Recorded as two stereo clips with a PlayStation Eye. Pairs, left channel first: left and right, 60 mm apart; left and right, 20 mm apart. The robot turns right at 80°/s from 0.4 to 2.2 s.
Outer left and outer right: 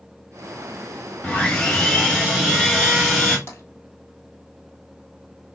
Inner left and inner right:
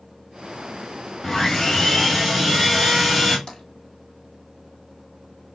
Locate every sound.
1.2 s sawing: 20° left (ahead or behind), 1.5 m; by 3.4 s 5° left (ahead or behind), 1.5 m
3.5 s tapping: 40° left (ahead or behind), 1.5 m